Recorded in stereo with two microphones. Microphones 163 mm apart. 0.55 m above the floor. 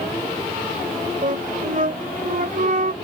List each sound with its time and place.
1.2 s a flute: 55° right (ahead or behind)